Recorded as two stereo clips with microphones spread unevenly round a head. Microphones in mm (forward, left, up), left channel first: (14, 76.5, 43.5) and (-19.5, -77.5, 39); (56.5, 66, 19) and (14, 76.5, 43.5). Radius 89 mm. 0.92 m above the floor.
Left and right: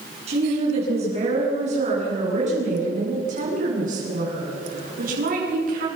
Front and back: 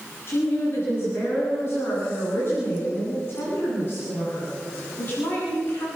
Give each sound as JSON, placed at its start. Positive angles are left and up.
{"t": 0.3, "sound": "a woman speaking", "azimuth_deg": -50, "distance_m": 10.0}